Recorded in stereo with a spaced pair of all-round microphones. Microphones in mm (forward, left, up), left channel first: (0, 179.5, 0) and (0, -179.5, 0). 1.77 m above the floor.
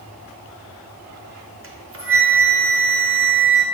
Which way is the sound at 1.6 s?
35° right (ahead or behind).